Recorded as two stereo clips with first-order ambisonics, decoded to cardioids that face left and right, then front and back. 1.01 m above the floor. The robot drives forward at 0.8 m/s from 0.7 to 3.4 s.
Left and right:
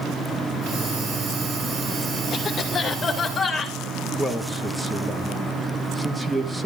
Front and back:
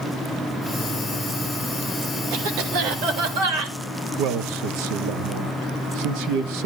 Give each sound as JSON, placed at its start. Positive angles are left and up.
{"t": 2.3, "sound": "a cough", "azimuth_deg": 160, "distance_m": 3.0}
{"t": 4.2, "sound": "a man speaking", "azimuth_deg": -175, "distance_m": 1.2}